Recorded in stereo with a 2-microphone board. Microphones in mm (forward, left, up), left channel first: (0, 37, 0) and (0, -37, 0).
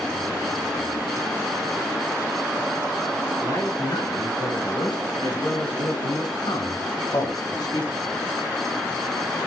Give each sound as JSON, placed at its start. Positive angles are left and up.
{"t": 3.4, "sound": "a man speaking", "side_deg": 70, "distance_m": 8.5}